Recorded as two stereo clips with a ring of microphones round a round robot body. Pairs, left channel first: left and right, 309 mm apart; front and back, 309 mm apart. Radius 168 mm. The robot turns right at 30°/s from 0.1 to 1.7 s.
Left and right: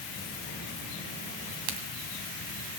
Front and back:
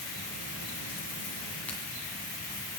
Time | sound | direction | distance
1.7 | a crack | 85° right | 2 m